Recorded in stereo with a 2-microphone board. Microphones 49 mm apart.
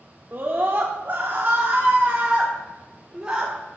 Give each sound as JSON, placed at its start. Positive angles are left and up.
{"t": 0.3, "sound": "a scream", "side_deg": -45, "distance_m": 1.0}